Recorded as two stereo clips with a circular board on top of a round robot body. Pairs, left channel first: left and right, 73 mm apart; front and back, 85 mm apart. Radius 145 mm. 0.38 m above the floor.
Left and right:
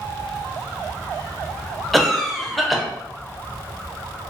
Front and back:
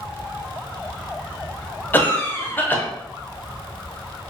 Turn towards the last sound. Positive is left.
turn(degrees=5)